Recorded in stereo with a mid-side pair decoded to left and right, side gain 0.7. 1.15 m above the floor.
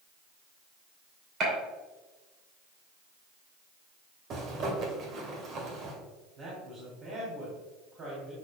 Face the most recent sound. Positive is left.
turn(degrees=-45)